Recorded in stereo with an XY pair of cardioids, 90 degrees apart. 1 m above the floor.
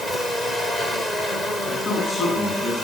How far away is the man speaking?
About 8.5 m.